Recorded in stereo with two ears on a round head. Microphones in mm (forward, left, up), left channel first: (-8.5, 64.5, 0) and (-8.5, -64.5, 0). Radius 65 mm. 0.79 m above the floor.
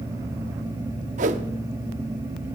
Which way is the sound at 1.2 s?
55° right (ahead or behind).